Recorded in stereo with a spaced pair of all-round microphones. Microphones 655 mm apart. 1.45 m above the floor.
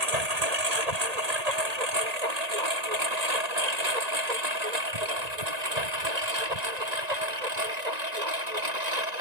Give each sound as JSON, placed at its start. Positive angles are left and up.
{"t": 0.0, "sound": "a lawn mower", "side_deg": -70}